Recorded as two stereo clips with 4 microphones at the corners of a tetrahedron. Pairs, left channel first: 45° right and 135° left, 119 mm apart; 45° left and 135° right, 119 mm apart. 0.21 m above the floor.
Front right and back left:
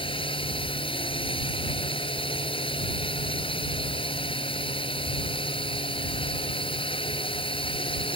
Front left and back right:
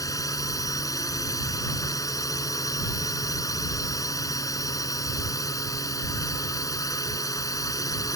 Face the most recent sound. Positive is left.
turn(degrees=-10)